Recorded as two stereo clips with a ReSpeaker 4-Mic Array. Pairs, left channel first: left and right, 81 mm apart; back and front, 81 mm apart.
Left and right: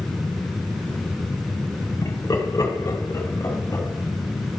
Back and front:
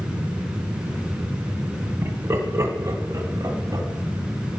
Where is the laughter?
45° left, 2 m; by 3.9 s 35° left, 3.5 m.